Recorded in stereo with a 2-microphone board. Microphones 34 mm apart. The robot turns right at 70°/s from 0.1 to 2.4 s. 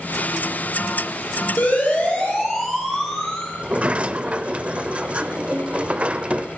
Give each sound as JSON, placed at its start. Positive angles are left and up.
{"t": 1.6, "sound": "a siren", "side_deg": 60, "distance_m": 7.5}
{"t": 3.6, "sound": "a sliding door", "side_deg": -35, "distance_m": 0.7}